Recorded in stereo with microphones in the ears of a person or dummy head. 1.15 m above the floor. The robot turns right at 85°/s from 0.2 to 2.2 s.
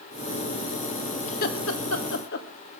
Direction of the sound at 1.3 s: 40° left (ahead or behind).